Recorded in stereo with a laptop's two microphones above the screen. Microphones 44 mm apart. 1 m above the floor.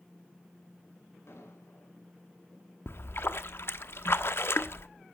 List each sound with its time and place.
1.3 s an explosion: 75° left (ahead or behind), 5.5 m
2.9 s a splash: 65° left (ahead or behind), 1.0 m